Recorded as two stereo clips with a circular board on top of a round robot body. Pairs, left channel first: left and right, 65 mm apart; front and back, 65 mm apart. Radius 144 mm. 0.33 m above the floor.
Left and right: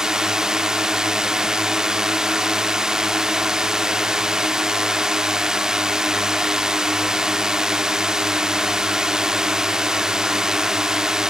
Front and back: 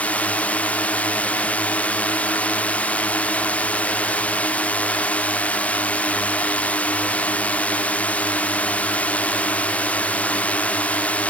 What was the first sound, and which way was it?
A drone, 25° right.